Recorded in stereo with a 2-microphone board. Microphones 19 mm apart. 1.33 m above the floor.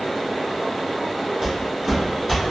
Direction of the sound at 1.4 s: 20° right (ahead or behind).